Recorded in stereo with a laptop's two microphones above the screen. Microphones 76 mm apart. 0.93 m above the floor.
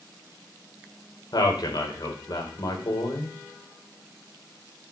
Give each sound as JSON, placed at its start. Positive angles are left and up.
{"t": 1.3, "sound": "a man speaking", "side_deg": 60, "distance_m": 3.5}